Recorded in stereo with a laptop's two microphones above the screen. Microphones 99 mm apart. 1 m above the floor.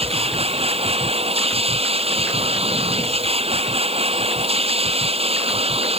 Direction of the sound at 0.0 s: 85° right.